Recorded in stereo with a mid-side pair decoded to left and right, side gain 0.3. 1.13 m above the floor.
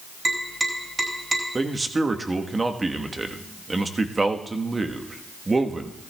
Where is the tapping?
35° right, 5 m.